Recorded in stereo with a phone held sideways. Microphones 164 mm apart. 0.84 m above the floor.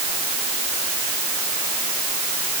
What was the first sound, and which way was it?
Only background noise.